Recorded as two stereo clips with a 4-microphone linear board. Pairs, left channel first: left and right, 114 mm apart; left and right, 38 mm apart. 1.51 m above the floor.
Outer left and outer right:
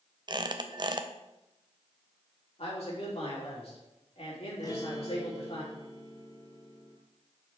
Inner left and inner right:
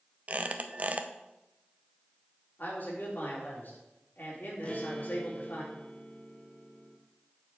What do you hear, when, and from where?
0.3 s a squeak: 40° right (ahead or behind), 0.6 m
2.6 s a man speaking: 65° left (ahead or behind), 3.5 m
4.6 s a guitar: 35° left (ahead or behind), 0.8 m